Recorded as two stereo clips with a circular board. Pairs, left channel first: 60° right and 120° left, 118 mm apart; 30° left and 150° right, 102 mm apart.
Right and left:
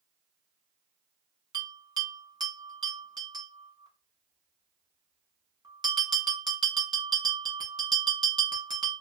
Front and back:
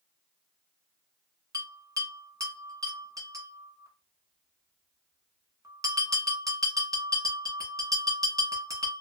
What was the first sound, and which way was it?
A bell, 165° left.